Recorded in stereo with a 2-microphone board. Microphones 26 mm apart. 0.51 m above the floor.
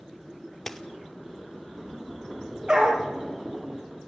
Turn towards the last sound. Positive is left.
turn(degrees=-35)  # may be behind; listen again after turning